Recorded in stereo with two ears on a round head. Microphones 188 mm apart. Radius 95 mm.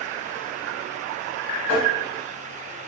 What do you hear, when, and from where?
1.7 s tapping: 5° left (ahead or behind), 1.6 m